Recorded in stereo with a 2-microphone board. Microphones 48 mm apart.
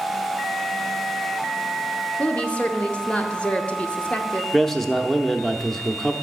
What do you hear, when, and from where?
2.2 s a woman speaking: 25° left (ahead or behind), 0.9 m
4.5 s a man speaking: 10° left (ahead or behind), 0.7 m